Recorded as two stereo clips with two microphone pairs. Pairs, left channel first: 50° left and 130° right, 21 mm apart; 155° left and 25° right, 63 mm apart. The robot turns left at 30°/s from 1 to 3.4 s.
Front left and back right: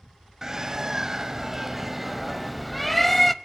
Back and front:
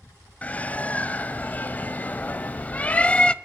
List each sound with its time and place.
0.4 s a bird: straight behind, 0.6 m; by 3.3 s 110° left, 0.6 m